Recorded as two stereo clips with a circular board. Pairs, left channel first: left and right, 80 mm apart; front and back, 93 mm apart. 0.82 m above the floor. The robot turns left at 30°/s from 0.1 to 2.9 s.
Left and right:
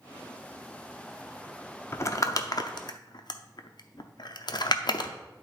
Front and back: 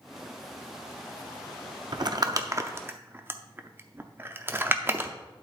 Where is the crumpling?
145° left, 0.6 m; by 5.1 s 115° left, 0.6 m.